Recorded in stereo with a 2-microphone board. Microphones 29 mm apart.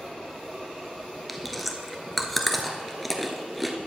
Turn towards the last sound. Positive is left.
turn(degrees=0)  # may be behind; listen again after turning